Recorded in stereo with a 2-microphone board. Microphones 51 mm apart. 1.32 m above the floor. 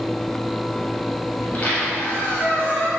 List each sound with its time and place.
1.4 s a squeak: 30° left (ahead or behind), 0.9 m